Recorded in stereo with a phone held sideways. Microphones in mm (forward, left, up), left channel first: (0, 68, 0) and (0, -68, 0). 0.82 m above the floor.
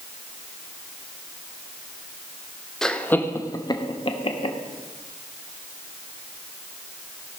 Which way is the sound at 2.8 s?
5° left (ahead or behind).